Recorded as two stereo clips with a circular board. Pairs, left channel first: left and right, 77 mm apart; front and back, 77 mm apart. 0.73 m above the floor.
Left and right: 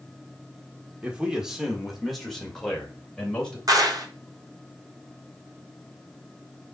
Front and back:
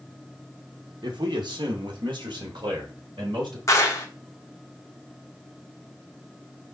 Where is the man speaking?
165° right, 1.5 m; by 3.6 s 170° left, 3 m.